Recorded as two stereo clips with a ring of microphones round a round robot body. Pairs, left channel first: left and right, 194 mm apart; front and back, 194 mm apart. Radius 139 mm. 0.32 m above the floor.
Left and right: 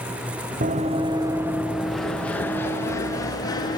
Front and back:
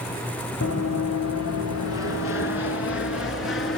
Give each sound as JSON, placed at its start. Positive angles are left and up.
{"t": 0.6, "sound": "running footsteps", "azimuth_deg": -40, "distance_m": 1.2}